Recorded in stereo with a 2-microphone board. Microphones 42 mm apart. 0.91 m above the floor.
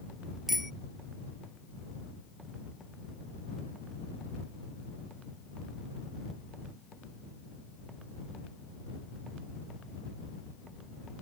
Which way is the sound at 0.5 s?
5° right (ahead or behind).